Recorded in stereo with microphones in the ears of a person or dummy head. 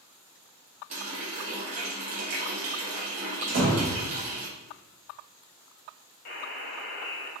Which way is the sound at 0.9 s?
30° right (ahead or behind).